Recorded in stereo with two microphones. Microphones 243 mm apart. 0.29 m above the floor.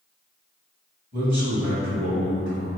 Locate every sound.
1.1 s a man speaking: 40° right (ahead or behind), 1.8 m; by 2.7 s 55° right (ahead or behind), 2.5 m